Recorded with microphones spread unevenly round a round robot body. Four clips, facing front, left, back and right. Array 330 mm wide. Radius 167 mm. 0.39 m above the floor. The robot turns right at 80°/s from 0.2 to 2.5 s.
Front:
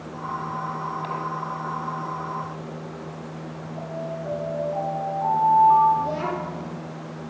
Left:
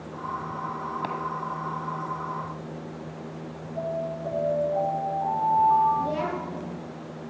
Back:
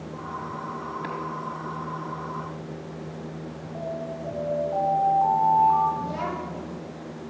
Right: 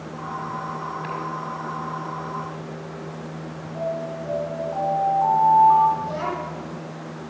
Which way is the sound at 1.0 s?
115° left.